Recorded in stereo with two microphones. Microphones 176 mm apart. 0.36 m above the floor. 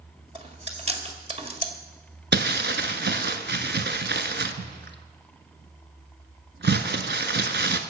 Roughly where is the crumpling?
Right.